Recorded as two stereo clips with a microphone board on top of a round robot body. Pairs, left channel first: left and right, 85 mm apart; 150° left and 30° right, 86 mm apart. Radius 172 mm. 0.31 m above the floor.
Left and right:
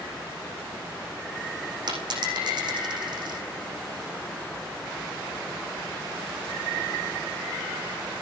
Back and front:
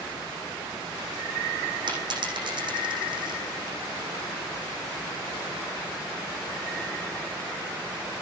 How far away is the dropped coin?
About 9 m.